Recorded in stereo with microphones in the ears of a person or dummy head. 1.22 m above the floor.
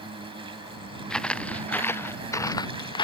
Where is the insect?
35° right (ahead or behind).